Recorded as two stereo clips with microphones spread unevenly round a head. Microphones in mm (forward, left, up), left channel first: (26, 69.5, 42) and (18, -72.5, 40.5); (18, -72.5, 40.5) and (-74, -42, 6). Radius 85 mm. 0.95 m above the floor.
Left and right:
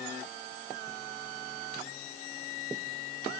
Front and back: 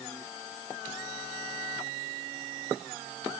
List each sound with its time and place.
Only background noise.